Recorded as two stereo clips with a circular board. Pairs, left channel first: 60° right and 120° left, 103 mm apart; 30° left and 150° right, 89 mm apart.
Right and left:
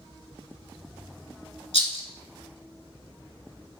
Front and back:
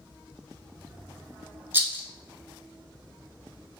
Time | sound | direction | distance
1.7 | a rattle | 80° right | 0.7 m